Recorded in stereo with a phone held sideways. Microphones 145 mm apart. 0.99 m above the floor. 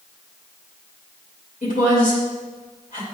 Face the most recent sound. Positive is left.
turn(degrees=65)  # may be behind; listen again after turning